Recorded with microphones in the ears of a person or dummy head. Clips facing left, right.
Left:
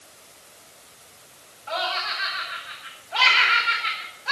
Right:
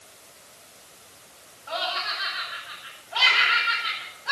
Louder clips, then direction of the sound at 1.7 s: Left 2 dB; 40° left (ahead or behind).